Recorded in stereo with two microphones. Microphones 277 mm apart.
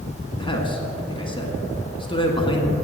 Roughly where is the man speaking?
Centre.